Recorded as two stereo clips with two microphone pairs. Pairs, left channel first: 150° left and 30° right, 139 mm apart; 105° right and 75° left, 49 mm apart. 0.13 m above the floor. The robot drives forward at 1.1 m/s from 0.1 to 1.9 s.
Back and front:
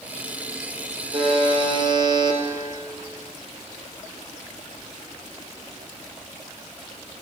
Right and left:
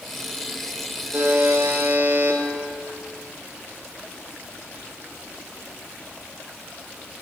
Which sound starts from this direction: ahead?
A buzzer, at 1.1 s.